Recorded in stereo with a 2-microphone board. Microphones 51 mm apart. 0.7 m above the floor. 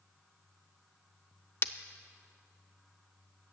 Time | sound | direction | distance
1.6 | breaking glass | 50° left (ahead or behind) | 0.5 m